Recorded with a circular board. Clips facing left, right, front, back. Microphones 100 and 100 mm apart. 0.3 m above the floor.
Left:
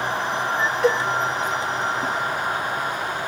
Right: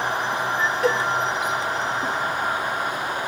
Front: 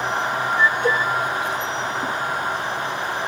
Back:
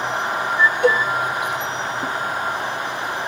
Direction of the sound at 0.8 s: Straight behind.